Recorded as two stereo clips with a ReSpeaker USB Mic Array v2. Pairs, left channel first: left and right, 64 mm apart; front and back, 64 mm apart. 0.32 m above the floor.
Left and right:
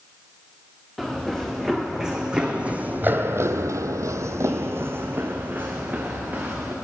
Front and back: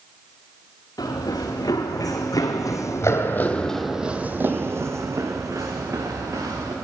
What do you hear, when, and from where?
1.0 s running footsteps: straight ahead, 1.7 m; by 6.8 s 155° right, 1.9 m